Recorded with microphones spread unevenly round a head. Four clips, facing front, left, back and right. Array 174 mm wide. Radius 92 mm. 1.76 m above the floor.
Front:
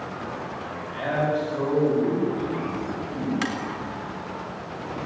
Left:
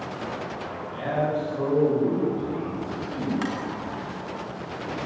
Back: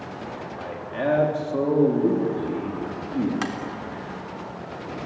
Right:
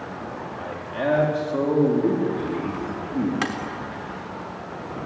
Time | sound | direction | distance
0.6 | a man speaking | 140° right | 5 m
3.4 | tapping | 105° right | 3.5 m